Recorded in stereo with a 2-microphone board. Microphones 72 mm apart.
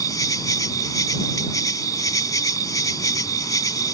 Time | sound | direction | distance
0.0 | an insect | 60° left (ahead or behind) | ?